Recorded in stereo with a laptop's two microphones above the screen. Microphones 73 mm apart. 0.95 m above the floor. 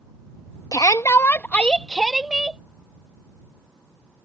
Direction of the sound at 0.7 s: 55° left (ahead or behind).